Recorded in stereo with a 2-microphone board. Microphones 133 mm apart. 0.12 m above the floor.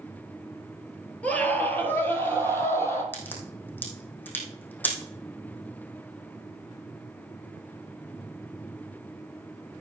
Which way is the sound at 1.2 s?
10° left (ahead or behind).